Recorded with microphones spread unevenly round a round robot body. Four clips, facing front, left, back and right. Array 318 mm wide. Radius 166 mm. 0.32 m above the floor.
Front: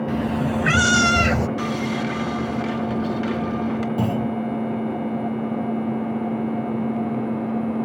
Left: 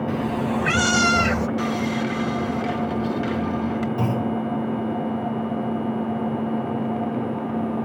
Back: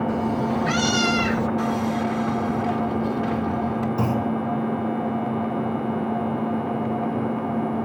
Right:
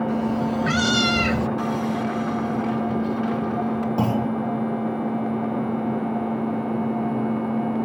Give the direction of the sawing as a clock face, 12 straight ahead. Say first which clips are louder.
Even, back 1 dB; 11 o'clock.